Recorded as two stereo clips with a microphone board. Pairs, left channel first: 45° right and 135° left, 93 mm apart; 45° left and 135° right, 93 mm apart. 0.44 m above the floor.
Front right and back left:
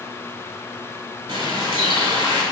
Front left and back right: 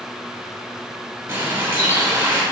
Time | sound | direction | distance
1.3 | a bird | 165° left | 1.2 m